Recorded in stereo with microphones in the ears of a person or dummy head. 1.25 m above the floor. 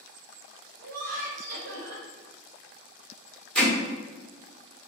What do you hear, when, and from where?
0.8 s laughter: 80° right, 0.9 m
3.5 s hammering: 5° left (ahead or behind), 1.6 m